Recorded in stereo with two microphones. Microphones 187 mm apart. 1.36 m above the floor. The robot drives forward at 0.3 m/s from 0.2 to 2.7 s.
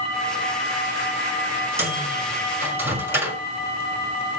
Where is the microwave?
15° right (ahead or behind), 5.5 m; by 3.4 s 10° right (ahead or behind), 5.5 m.